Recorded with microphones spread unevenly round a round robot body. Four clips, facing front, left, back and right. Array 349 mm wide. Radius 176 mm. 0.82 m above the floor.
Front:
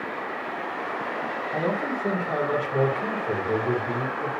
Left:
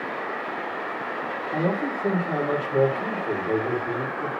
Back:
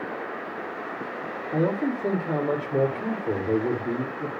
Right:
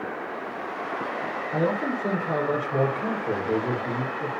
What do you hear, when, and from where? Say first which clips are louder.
1.5 s a man speaking: even, back 3 dB; 170° left, 3 m